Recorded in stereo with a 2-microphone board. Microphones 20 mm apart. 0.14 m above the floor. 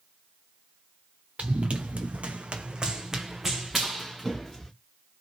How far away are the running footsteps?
About 1.0 m.